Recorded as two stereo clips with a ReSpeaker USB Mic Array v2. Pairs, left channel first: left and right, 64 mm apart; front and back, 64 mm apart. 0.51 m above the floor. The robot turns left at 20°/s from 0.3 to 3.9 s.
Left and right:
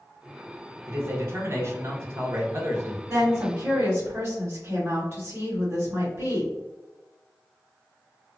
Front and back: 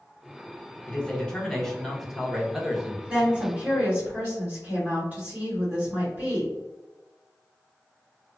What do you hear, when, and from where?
0.9 s a man speaking: 65° right, 0.8 m; by 3.0 s 105° right, 0.8 m
3.1 s a woman speaking: 115° right, 1.7 m; by 6.5 s 135° right, 1.7 m